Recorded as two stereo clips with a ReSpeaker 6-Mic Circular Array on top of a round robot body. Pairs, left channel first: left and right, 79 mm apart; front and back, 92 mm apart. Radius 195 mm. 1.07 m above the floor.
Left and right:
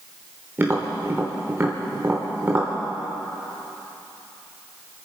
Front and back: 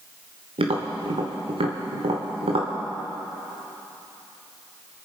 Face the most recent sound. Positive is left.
turn(degrees=-160)